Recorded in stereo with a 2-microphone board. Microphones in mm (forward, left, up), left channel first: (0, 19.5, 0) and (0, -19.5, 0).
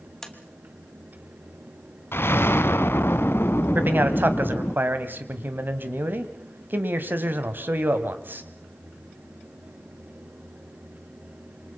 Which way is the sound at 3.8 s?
50° right (ahead or behind).